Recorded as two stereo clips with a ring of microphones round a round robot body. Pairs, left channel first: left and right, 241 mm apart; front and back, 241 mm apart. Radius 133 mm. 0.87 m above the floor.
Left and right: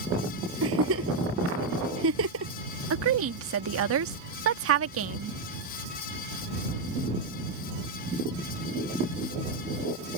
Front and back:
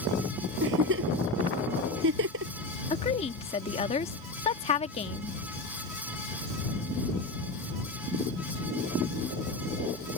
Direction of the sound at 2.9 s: 65° right.